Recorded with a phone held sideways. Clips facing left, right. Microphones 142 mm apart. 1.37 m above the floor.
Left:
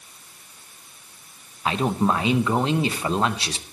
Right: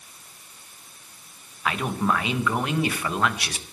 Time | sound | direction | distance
1.6 | a man speaking | 25° left (ahead or behind) | 1.0 m